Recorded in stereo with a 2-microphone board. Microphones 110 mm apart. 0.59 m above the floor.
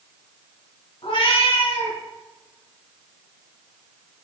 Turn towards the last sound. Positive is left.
turn(degrees=55)  # may be behind; listen again after turning